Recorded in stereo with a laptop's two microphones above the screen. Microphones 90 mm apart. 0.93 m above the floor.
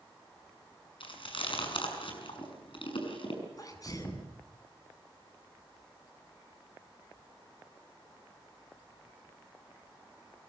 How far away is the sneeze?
About 7.5 m.